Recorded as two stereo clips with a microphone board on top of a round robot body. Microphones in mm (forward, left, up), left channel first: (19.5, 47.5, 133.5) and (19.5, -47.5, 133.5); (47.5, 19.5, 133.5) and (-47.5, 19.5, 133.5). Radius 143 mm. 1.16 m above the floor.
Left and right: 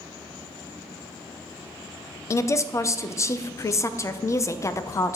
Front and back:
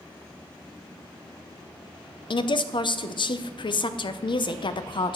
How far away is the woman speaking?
About 0.6 m.